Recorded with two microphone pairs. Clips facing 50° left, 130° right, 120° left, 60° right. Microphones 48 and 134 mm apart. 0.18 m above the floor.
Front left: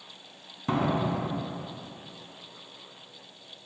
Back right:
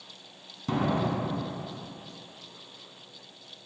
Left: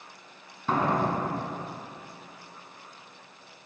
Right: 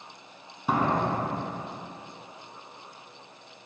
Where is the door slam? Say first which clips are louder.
Front left 1 dB, even; 15° left, 1.0 m.